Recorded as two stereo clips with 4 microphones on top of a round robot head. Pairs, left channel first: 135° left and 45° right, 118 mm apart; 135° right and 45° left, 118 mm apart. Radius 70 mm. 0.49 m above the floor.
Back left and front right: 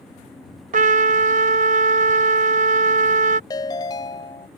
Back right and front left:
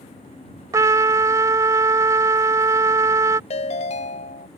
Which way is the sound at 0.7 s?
20° right.